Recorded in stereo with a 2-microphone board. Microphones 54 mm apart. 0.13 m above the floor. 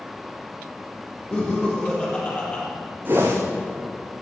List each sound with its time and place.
1.3 s laughter: 20° left (ahead or behind), 5 m
3.0 s a whoosh: 30° right (ahead or behind), 3 m